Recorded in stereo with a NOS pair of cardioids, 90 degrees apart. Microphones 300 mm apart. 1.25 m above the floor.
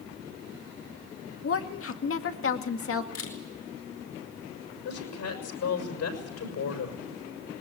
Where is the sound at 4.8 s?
65° left, 6.5 m.